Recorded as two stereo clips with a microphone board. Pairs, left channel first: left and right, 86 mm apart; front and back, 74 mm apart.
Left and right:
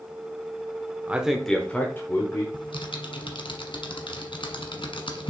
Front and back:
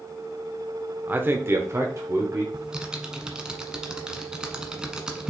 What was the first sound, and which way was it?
A man speaking, 140° right.